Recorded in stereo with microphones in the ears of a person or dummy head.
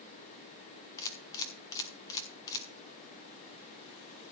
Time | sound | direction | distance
1.0 | a camera shutter | 20° left (ahead or behind) | 0.7 m